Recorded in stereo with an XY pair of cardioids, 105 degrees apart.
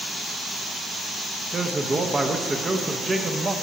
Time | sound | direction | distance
1.5 | a man speaking | 30° right | 0.6 m